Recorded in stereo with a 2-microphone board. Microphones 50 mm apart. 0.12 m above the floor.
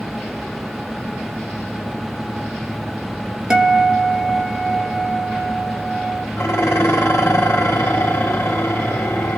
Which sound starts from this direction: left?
Dishes clattering, at 6.4 s.